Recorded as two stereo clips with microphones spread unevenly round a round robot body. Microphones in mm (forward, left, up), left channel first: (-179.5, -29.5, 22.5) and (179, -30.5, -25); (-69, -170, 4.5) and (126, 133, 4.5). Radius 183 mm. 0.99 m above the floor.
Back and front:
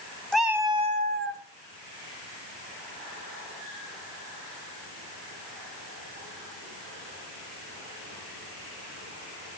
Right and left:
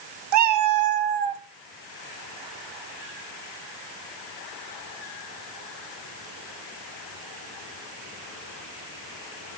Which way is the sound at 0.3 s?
95° left.